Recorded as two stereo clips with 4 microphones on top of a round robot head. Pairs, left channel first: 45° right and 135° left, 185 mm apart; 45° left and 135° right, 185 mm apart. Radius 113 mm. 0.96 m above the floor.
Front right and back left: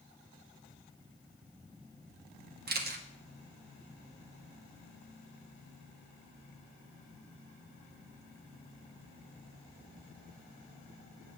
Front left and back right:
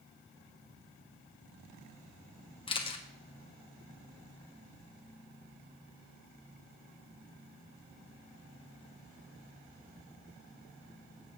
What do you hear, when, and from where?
2.7 s a camera shutter: 105° left, 1.5 m